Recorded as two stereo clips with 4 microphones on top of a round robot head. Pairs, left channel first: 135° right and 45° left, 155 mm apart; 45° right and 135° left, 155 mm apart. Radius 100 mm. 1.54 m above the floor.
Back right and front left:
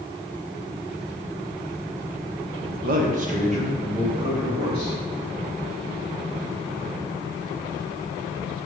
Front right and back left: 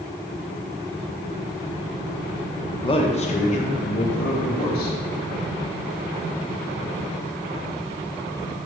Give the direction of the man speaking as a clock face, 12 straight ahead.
11 o'clock.